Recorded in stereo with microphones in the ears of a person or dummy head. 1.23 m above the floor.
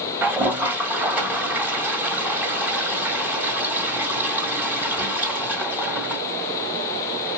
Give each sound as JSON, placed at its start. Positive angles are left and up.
{"t": 0.2, "sound": "a toilet flushing", "side_deg": -10, "distance_m": 1.4}